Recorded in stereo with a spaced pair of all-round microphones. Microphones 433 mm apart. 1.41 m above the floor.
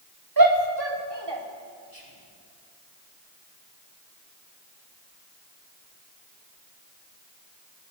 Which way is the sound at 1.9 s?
50° right (ahead or behind).